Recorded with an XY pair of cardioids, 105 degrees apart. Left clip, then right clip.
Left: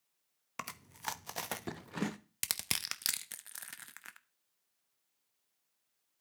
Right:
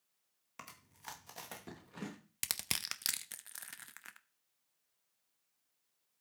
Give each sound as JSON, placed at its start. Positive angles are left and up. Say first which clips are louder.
{"t": 0.6, "sound": "chewing", "louder": "left 10 dB", "azimuth_deg": 60, "distance_m": 0.9}
{"t": 2.4, "sound": "crushing", "louder": "left 2 dB", "azimuth_deg": 10, "distance_m": 0.7}